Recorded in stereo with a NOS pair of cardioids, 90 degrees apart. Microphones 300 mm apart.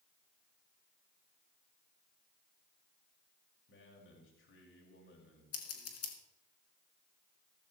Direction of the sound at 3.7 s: 45° left.